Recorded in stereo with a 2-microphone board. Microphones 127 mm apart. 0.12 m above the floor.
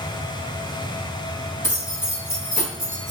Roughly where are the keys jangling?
Centre.